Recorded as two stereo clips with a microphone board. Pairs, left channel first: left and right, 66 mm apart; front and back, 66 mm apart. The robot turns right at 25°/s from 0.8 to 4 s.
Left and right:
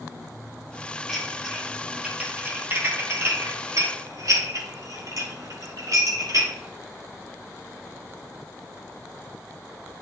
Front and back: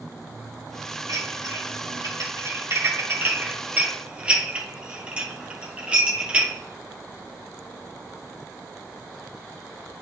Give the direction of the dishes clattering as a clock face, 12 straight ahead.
6 o'clock.